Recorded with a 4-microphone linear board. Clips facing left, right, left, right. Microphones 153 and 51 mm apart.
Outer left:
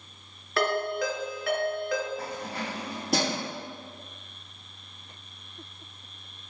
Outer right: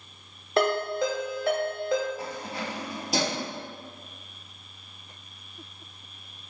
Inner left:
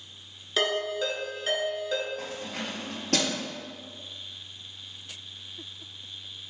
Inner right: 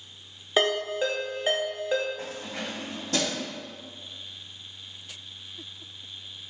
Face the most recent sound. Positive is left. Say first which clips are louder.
# even, even
turn(degrees=60)  # may be behind; listen again after turning